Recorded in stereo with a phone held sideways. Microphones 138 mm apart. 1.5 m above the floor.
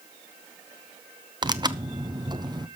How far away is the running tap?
I don't hear a running tap.